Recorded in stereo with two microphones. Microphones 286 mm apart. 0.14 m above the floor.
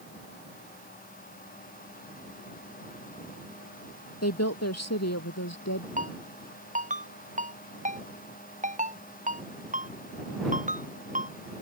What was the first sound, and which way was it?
A woman speaking, 60° left (ahead or behind).